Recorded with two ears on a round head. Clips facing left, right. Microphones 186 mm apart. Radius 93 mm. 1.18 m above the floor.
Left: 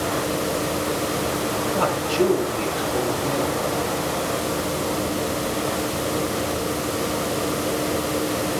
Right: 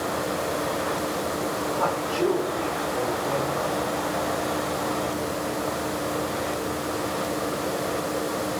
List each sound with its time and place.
1.7 s a man speaking: 80° left, 8 m